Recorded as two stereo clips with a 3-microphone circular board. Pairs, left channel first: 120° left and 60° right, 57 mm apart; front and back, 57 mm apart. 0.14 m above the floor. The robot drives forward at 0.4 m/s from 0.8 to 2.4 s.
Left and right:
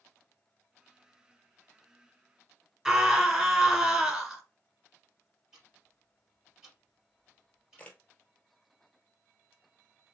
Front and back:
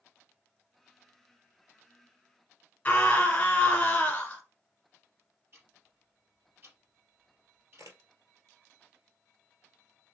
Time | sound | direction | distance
2.9 | a scream | 10° left | 1.3 m
5.5 | ticking | 135° right | 3 m
7.8 | a camera shutter | 175° right | 0.9 m